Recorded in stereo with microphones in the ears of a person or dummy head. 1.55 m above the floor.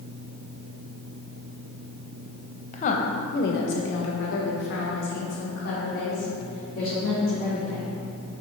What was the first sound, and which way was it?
A woman speaking, 40° left (ahead or behind).